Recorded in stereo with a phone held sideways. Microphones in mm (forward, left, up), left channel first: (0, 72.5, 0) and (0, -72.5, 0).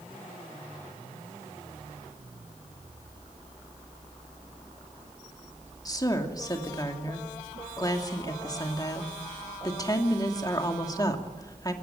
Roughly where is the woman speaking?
Left.